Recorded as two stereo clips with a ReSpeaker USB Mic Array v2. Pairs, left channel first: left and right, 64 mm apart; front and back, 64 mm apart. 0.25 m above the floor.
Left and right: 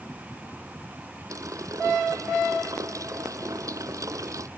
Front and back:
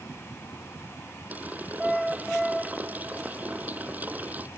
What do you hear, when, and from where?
1.3 s a running tap: 115° right